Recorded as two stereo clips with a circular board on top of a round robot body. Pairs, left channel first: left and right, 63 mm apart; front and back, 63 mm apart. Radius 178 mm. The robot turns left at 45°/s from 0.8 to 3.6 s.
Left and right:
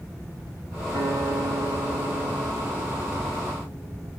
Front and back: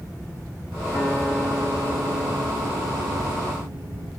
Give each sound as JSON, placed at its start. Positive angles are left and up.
{"t": 0.9, "sound": "a guitar", "azimuth_deg": -65, "distance_m": 4.5}